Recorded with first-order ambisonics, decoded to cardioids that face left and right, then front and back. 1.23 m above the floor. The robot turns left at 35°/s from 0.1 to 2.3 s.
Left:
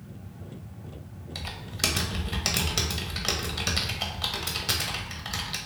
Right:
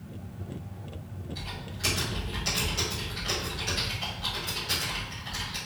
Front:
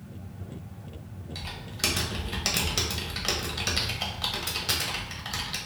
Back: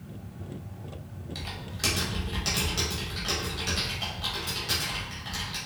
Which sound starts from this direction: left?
Typing on a keyboard, at 1.4 s.